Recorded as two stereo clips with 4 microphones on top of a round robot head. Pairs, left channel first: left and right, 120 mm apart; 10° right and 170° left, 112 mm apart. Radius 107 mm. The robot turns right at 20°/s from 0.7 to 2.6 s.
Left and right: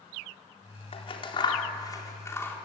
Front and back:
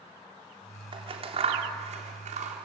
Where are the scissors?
130° left, 3 m; by 2.6 s 165° left, 3 m.